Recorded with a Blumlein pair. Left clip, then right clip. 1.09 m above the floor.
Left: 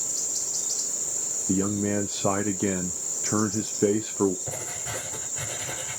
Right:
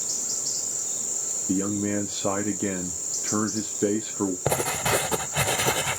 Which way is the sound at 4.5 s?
45° right.